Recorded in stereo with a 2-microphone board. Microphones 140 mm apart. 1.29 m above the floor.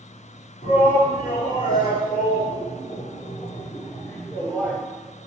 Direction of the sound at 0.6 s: 80° left.